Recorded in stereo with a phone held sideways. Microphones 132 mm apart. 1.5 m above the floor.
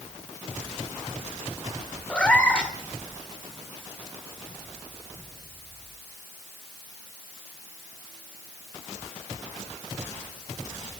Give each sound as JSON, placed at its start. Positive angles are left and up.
{"t": 2.1, "sound": "a cat meowing", "side_deg": 10, "distance_m": 2.5}